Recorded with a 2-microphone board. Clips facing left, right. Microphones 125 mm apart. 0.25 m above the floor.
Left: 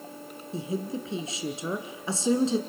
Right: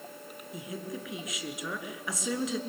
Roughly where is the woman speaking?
Left.